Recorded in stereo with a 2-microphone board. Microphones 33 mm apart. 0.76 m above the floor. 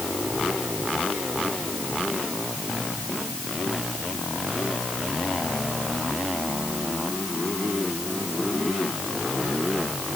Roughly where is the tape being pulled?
No tape being pulled in this recording.